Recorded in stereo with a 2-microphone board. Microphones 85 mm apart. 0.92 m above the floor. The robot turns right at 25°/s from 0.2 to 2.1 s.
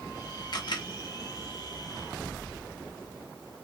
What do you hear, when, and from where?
0.5 s a camera shutter: 55° left (ahead or behind), 0.7 m; by 0.9 s 65° left (ahead or behind), 0.7 m